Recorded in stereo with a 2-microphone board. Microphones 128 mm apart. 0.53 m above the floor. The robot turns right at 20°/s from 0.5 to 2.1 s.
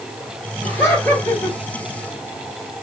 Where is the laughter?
20° left (ahead or behind), 1.9 m; by 1.6 s 5° left (ahead or behind), 1.9 m.